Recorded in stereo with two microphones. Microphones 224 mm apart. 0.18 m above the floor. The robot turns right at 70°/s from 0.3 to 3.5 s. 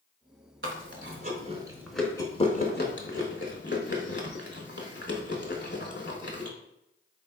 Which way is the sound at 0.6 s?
60° right (ahead or behind).